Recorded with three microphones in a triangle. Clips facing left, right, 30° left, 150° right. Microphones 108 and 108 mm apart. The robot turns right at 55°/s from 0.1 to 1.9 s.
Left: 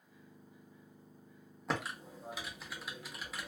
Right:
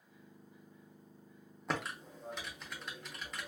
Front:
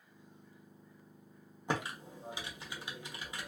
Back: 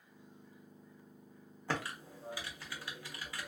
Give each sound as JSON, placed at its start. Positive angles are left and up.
{"t": 1.7, "sound": "typing on a keyboard", "azimuth_deg": 0, "distance_m": 0.8}